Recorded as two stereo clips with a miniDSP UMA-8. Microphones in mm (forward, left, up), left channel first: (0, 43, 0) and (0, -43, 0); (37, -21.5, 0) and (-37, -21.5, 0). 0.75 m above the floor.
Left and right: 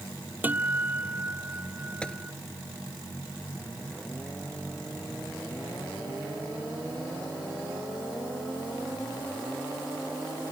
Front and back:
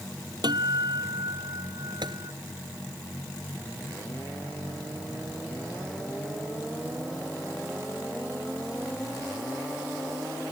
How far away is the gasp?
No gasp in this recording.